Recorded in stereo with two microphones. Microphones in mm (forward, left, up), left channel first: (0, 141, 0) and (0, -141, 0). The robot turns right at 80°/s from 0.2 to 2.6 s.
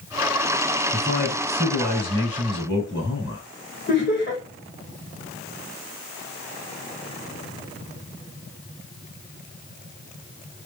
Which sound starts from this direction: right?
A man speaking, at 0.9 s.